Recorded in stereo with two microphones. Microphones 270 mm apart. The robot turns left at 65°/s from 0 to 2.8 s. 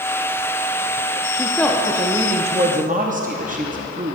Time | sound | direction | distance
1.3 | a woman speaking | 25° left | 0.6 m